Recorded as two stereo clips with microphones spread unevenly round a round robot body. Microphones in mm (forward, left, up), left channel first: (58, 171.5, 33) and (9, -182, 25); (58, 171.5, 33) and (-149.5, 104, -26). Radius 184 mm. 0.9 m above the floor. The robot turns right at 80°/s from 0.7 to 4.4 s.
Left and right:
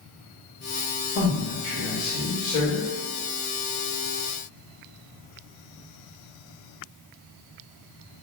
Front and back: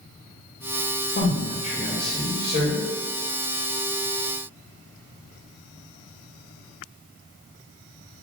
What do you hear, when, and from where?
1.1 s a man speaking: 45° left, 1.5 m; by 2.9 s straight behind, 1.5 m